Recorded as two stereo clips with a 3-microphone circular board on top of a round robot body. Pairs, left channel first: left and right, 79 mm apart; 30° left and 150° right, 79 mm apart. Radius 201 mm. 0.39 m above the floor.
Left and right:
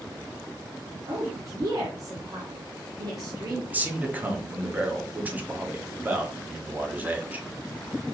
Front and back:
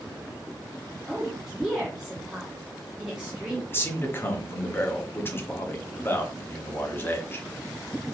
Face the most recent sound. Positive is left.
turn(degrees=-25)